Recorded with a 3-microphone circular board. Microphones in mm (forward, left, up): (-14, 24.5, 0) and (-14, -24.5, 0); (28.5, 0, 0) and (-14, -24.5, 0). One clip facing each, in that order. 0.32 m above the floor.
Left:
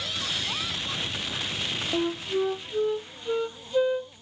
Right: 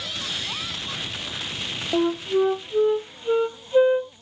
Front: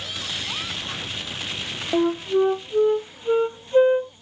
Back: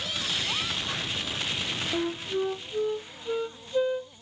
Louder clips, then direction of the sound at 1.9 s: Right 7 dB, front 11 dB; 20° right.